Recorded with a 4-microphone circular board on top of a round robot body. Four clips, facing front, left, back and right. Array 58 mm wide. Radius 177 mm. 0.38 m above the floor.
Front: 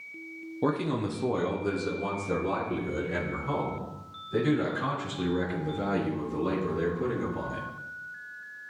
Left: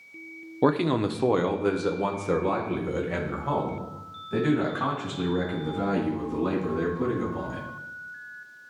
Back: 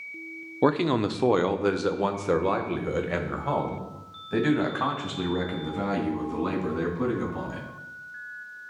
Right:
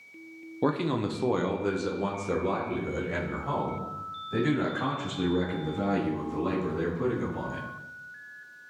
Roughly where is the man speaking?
Behind left.